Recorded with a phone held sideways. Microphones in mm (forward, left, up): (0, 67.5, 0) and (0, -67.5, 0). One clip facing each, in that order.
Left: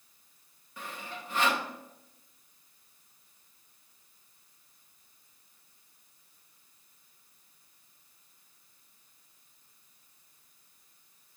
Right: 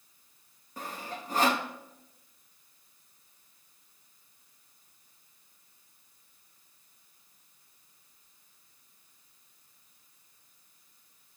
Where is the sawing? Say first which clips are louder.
Right 3 dB; 40° right (ahead or behind), 0.7 m.